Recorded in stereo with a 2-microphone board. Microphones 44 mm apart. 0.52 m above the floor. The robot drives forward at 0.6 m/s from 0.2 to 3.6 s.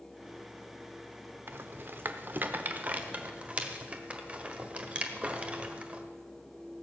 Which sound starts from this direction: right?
A rattle, at 1.5 s.